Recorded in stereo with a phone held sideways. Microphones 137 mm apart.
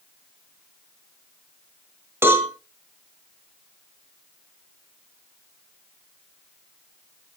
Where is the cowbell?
15° right (ahead or behind), 3 m.